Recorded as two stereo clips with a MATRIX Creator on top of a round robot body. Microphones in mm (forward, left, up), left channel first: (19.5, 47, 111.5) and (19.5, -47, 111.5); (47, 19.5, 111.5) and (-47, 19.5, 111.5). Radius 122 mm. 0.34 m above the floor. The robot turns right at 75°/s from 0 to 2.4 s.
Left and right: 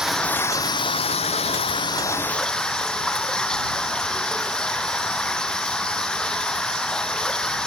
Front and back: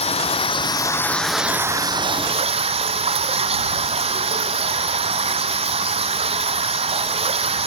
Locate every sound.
0.0 s running water: 5° right; by 7.7 s 175° left